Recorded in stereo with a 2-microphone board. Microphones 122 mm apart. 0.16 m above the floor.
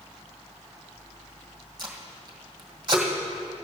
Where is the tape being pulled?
35° right (ahead or behind), 1.8 m.